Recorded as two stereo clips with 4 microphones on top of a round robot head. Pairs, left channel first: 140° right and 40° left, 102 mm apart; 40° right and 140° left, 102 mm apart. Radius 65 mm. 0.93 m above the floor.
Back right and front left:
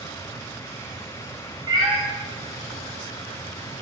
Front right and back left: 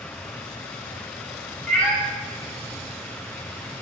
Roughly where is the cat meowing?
Ahead left.